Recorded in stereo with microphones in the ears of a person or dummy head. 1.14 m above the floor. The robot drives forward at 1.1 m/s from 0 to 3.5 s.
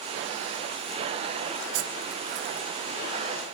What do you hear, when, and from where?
1.7 s cutlery clinking: 70° right (ahead or behind), 0.6 m; by 2.7 s 25° right (ahead or behind), 1.2 m